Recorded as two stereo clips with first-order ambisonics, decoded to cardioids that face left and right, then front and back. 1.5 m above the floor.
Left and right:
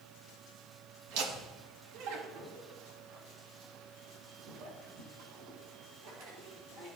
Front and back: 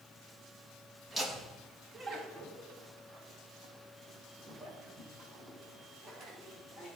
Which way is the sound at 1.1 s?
85° right.